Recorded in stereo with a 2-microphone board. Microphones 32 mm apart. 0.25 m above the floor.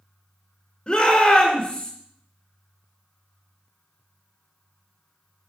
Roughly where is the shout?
Centre.